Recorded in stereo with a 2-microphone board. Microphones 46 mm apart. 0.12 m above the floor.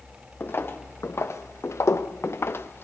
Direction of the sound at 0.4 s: 55° left (ahead or behind).